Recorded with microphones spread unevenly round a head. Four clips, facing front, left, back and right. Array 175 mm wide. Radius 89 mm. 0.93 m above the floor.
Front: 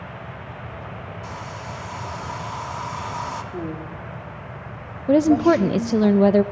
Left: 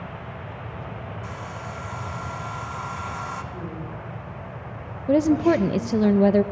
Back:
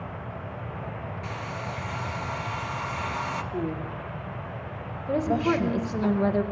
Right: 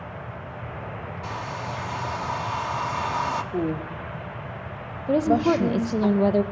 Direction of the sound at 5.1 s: 25° left.